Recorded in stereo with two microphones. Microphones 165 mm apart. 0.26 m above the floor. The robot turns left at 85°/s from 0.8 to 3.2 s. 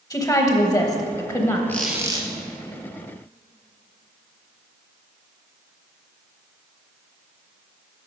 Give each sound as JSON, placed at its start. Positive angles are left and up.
{"t": 0.1, "sound": "a woman speaking", "side_deg": 20, "distance_m": 1.0}
{"t": 1.7, "sound": "a squeak", "azimuth_deg": 15, "distance_m": 1.1}